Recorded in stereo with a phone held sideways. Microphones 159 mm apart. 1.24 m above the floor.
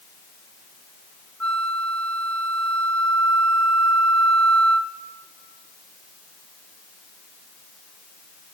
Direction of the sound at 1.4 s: 10° left (ahead or behind).